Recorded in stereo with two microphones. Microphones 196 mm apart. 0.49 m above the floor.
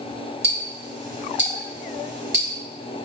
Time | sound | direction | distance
0.4 | ticking | 75° right (ahead or behind) | 1.0 m